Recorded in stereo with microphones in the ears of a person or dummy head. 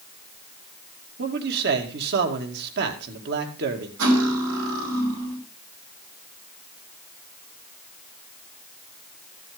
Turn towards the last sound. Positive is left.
turn(degrees=-75)  # may be behind; listen again after turning